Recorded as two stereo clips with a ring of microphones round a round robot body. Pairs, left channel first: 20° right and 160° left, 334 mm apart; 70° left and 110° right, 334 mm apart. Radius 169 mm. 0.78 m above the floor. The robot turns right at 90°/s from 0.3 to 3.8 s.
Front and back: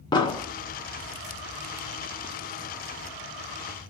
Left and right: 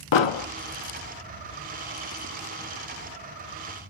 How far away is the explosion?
About 0.7 m.